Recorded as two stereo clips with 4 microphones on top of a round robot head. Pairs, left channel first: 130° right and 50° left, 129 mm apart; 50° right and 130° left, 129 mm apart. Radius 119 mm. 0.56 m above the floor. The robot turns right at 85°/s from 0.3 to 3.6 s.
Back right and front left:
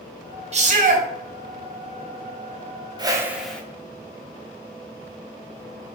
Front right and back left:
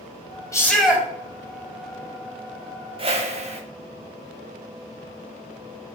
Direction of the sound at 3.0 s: 100° left.